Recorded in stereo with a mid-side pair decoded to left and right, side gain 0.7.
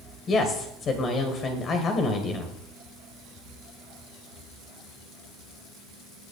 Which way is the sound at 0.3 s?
35° left.